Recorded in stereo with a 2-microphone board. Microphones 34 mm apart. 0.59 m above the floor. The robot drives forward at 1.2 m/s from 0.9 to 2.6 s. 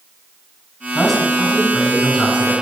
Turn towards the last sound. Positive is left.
turn(degrees=5)  # may be behind; listen again after turning